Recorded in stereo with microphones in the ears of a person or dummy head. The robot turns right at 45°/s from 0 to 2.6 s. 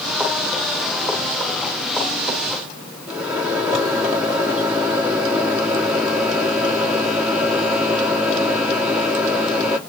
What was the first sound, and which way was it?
A microwave, 5° left (ahead or behind).